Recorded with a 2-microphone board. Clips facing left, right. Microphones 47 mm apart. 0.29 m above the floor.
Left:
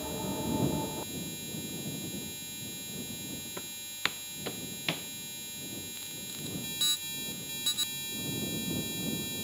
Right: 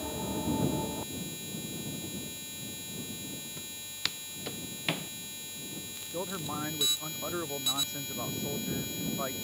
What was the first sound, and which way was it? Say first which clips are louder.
Footsteps: left 5 dB; 35° left (ahead or behind).